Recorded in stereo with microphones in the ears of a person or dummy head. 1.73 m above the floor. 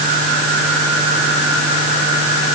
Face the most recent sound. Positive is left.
No sound to turn to.